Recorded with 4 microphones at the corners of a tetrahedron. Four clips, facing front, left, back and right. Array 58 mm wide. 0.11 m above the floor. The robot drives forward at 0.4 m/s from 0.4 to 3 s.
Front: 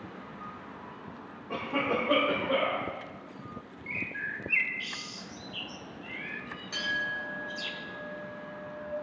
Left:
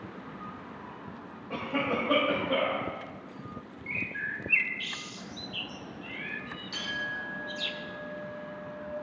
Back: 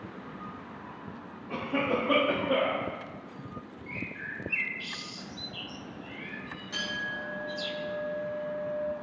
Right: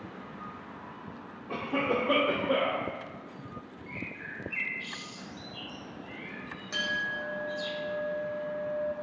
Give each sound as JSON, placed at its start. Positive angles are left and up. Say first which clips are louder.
{"t": 1.5, "sound": "a cough", "louder": "right 1 dB, back 1 dB", "azimuth_deg": -85, "distance_m": 3.0}
{"t": 3.9, "sound": "a bird", "louder": "left 7 dB, front 4 dB", "azimuth_deg": 90, "distance_m": 0.7}
{"t": 6.7, "sound": "a clink", "louder": "right 3 dB, front 2 dB", "azimuth_deg": -100, "distance_m": 3.5}